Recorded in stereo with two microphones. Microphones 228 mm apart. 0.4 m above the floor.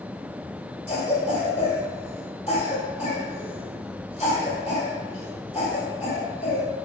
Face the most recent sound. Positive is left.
turn(degrees=30)  # may be behind; listen again after turning